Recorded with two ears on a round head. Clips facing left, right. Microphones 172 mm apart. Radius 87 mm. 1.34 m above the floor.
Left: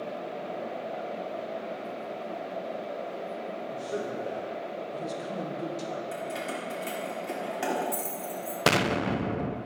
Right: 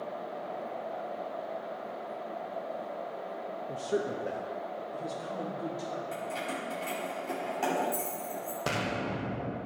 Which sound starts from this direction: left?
An explosion, at 8.7 s.